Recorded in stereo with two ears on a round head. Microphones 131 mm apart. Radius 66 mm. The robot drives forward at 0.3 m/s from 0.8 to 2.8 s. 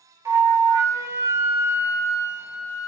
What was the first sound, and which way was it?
A flute, 20° right (ahead or behind).